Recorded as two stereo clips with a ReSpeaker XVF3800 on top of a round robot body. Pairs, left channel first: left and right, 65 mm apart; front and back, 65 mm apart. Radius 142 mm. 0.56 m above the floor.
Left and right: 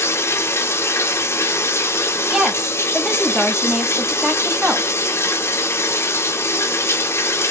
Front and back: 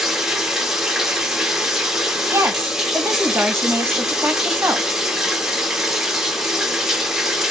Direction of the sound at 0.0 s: 100° left.